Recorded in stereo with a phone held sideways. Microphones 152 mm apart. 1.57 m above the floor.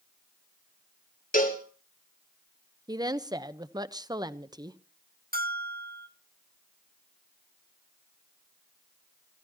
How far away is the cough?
I don't hear a cough.